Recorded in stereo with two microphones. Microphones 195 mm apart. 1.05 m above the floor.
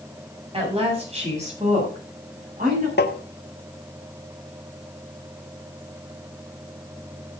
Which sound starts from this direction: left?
Tapping, at 3.0 s.